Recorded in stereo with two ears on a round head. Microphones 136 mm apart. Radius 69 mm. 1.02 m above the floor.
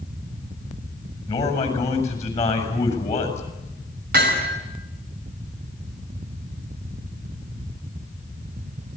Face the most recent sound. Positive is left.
turn(degrees=-65)  # may be behind; listen again after turning